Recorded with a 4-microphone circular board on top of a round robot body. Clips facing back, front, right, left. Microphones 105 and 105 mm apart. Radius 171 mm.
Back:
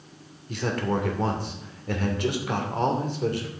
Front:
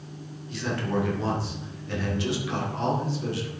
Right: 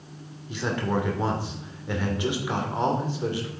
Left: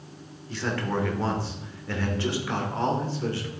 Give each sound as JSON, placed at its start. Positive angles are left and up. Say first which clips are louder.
{"t": 0.5, "sound": "a man speaking", "louder": "back 2 dB, right 2 dB", "azimuth_deg": -160, "distance_m": 2.5}